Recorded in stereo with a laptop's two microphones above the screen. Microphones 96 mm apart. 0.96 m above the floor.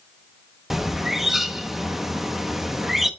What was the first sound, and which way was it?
A bird, 5° right (ahead or behind).